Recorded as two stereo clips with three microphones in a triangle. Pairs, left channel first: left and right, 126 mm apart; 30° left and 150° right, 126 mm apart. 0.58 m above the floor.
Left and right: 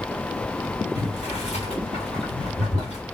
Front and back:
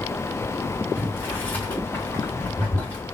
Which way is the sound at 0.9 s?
100° left.